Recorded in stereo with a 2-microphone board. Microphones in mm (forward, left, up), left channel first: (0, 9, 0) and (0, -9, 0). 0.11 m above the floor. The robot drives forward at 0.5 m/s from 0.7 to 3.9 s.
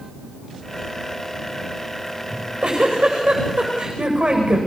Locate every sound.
2.3 s a giggle: 65° right (ahead or behind), 9.5 m; by 4.6 s 70° right (ahead or behind), 9.5 m